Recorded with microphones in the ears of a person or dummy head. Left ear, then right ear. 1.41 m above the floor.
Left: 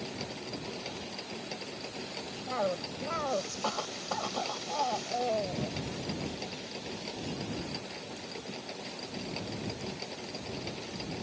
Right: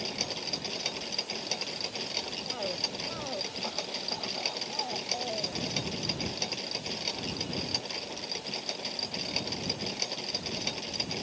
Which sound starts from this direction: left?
A cough, at 2.5 s.